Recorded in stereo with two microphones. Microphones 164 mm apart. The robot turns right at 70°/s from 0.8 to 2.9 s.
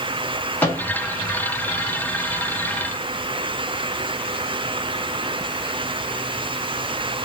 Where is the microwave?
10° left (ahead or behind), 1.5 m; by 0.8 s 15° left (ahead or behind), 1.5 m.